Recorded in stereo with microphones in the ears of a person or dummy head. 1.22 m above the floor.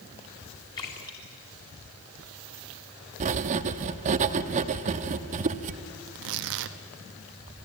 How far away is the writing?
About 1.0 m.